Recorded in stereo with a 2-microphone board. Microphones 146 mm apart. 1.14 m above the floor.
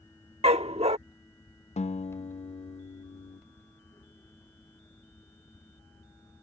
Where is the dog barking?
45° right (ahead or behind).